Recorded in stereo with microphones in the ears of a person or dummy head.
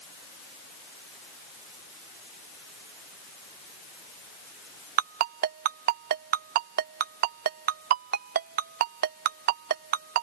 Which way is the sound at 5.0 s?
50° right (ahead or behind).